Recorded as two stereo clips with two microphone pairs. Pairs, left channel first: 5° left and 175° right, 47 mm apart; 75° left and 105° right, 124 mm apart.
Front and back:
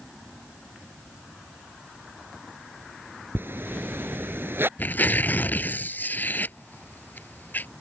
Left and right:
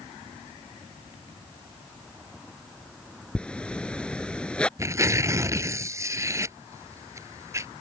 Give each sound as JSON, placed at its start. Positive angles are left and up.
{"t": 3.4, "sound": "a zipper", "azimuth_deg": 155}
{"t": 4.8, "sound": "tearing paper", "azimuth_deg": -40}